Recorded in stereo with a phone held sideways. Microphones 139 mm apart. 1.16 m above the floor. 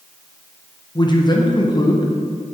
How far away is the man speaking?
About 1.0 m.